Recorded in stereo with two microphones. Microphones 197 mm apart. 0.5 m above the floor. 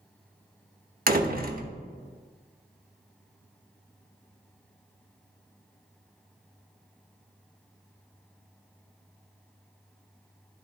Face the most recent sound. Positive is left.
turn(degrees=-45)  # may be behind; listen again after turning